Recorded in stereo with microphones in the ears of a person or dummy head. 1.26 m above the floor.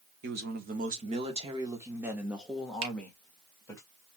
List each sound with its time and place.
0.2 s a man speaking: 55° right (ahead or behind), 1.4 m; by 3.8 s 10° left (ahead or behind), 1.9 m
2.8 s a finger snap: 75° right (ahead or behind), 1.8 m